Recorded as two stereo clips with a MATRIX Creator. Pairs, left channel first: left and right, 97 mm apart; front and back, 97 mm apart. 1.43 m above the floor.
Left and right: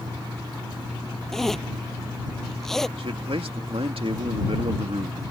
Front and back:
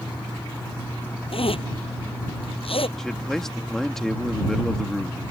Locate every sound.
1.3 s a zipper: 5° left
3.0 s a man speaking: 85° right